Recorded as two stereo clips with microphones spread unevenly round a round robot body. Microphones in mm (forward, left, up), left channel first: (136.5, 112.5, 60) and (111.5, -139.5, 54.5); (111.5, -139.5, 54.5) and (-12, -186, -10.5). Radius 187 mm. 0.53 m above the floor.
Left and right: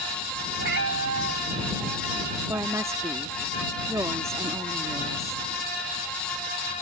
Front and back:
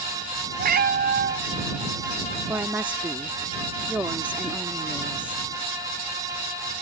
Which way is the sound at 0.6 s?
155° right.